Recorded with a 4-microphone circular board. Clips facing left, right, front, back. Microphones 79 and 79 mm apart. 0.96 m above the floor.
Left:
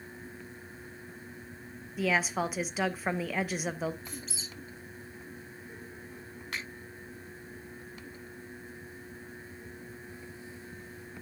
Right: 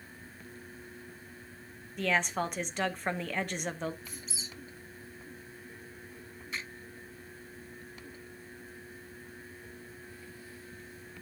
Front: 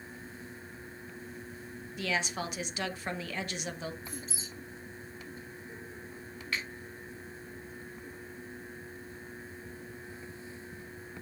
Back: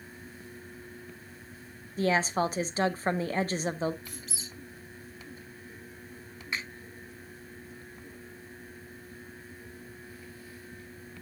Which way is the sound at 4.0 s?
Straight behind.